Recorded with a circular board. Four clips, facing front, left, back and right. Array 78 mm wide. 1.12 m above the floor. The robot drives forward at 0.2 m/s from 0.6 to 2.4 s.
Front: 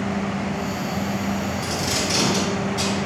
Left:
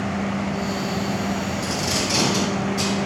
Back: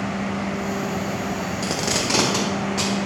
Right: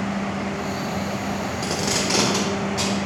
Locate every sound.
1.6 s tape being pulled: 160° right, 0.6 m